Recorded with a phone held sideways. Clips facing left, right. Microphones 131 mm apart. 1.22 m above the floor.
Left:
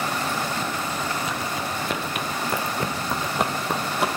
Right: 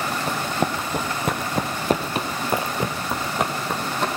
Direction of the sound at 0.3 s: 60° right (ahead or behind).